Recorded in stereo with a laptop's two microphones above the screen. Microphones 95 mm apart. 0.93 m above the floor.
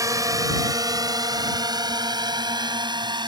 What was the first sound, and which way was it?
A drone, 35° right (ahead or behind).